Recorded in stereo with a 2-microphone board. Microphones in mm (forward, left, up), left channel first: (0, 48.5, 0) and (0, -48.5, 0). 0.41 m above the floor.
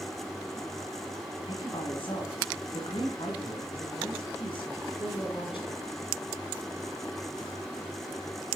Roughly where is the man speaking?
Left.